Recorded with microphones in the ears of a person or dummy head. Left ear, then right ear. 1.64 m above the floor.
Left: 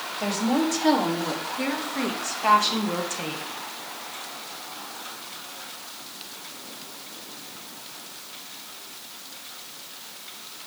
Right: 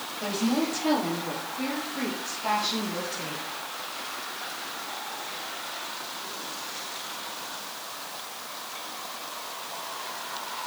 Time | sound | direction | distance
0.2 | a woman speaking | 65° left (ahead or behind) | 3 m